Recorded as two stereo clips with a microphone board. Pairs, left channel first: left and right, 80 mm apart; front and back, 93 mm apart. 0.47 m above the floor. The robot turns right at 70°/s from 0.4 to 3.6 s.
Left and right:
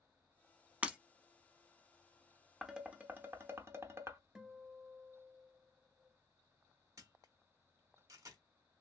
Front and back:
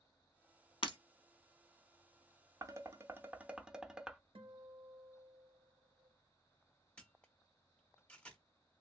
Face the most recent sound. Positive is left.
turn(degrees=-75)